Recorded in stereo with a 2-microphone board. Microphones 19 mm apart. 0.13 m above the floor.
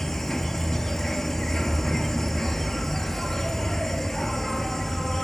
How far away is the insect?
About 0.7 m.